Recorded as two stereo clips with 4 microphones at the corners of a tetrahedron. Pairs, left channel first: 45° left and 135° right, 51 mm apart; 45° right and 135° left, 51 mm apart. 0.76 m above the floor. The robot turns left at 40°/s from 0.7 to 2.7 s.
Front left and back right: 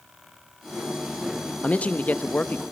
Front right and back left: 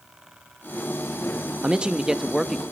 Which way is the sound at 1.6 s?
80° left.